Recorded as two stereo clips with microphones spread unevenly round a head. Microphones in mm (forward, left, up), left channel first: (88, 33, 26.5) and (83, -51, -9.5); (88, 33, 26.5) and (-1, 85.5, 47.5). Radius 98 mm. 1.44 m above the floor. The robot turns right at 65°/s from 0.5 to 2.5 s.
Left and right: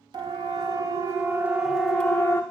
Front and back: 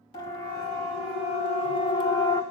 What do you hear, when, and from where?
0.1 s a siren: 75° right, 3 m; by 2.4 s 20° left, 1.9 m